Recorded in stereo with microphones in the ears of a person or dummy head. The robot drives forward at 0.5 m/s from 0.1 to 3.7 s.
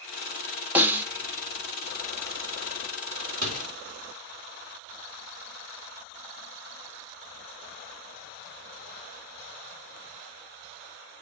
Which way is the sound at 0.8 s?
10° right (ahead or behind).